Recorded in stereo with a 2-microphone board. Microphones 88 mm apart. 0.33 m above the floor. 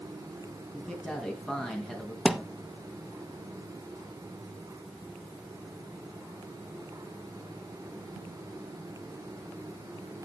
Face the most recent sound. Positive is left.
turn(degrees=0)  # may be behind; listen again after turning